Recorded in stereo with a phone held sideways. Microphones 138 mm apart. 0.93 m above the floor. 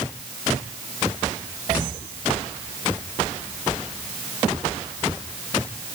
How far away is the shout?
No shout in this recording.